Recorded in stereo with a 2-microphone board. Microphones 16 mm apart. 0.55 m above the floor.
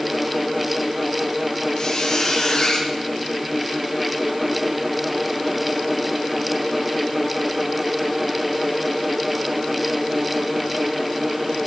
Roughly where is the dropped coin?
I don't hear a dropped coin.